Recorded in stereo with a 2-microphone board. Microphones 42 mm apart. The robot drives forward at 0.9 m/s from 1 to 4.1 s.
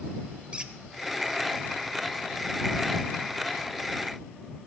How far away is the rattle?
No rattle in this recording.